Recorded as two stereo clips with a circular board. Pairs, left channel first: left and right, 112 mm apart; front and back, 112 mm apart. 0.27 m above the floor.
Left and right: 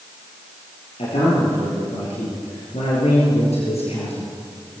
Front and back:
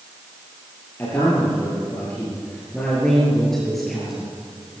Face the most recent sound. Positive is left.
turn(degrees=95)